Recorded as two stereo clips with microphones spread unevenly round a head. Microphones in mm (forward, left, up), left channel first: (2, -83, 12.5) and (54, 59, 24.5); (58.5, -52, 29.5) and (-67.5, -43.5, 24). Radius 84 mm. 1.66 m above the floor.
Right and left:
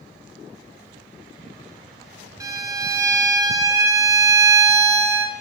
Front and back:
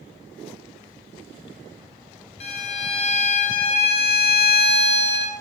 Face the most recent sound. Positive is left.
turn(degrees=15)